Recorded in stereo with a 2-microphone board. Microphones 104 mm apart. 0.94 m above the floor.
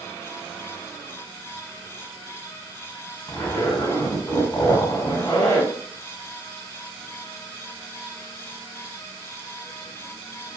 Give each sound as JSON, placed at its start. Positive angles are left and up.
{"t": 3.3, "sound": "a zipper", "side_deg": 20, "distance_m": 1.7}